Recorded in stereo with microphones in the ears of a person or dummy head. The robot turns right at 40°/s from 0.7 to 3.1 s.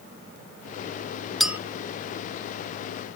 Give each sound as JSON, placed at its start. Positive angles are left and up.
{"t": 1.4, "sound": "a clink", "side_deg": -5}